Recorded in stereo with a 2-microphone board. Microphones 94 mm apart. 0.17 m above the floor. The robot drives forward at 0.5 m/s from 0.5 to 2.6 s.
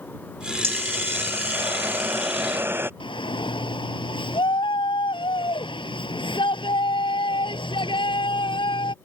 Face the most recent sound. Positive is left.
turn(degrees=70)  # may be behind; listen again after turning